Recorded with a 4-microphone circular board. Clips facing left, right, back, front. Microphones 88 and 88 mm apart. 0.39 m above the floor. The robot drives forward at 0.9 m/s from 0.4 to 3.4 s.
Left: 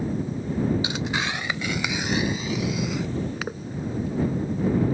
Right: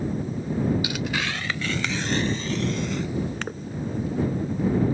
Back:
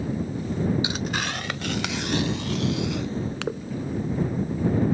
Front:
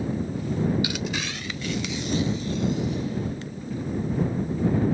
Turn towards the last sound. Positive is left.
turn(degrees=175)